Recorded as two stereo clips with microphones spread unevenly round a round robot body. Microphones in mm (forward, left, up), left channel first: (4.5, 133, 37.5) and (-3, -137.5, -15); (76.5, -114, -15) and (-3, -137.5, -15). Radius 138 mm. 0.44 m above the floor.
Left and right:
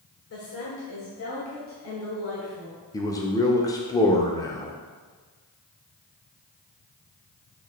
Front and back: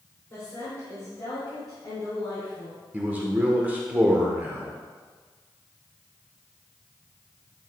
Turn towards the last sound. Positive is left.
turn(degrees=175)